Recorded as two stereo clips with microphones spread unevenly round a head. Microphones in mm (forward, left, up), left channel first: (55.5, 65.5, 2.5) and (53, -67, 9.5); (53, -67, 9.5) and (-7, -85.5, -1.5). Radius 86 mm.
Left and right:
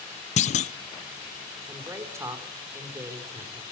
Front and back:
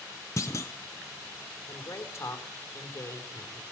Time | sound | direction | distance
0.4 | a clunk | 80° left | 0.6 m
1.7 | a woman speaking | 20° right | 4 m